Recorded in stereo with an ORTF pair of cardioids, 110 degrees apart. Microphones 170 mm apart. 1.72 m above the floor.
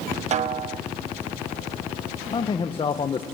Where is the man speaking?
30° left, 1.4 m.